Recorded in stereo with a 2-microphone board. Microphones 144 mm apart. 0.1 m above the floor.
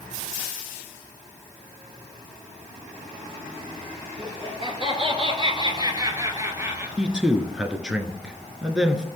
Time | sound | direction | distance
4.2 | laughter | 30° right (ahead or behind) | 1.9 m
7.0 | a man speaking | 5° right (ahead or behind) | 1.2 m